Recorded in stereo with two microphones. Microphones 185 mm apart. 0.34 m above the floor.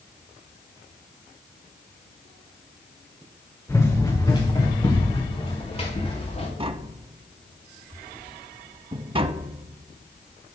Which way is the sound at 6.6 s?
30° right (ahead or behind).